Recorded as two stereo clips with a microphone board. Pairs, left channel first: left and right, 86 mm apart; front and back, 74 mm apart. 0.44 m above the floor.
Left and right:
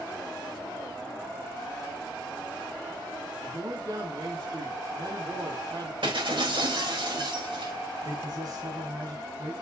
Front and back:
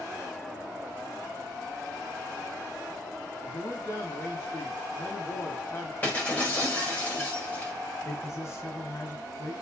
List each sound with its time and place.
3.4 s a man speaking: 45° right, 3 m
6.0 s breaking glass: 70° right, 5.5 m
8.1 s a man speaking: 50° right, 3 m